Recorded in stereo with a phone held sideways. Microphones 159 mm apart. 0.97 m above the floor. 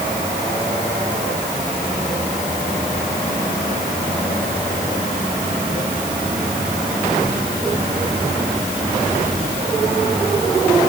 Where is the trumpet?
I don't hear a trumpet.